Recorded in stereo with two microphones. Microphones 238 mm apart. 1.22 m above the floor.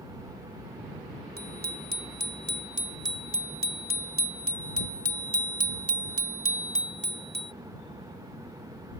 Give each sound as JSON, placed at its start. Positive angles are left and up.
{"t": 1.4, "sound": "a bicycle bell", "side_deg": -40}